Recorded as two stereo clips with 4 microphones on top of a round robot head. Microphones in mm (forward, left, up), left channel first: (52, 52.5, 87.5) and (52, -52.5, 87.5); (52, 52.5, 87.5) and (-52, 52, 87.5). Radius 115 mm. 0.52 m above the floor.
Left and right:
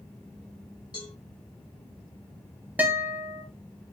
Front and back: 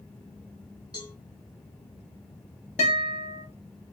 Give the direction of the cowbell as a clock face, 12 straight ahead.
10 o'clock.